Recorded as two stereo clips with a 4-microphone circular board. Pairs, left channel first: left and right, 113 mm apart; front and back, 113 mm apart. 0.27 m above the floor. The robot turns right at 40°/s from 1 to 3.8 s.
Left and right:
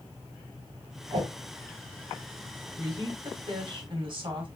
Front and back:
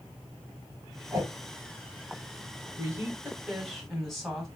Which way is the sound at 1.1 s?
135° right.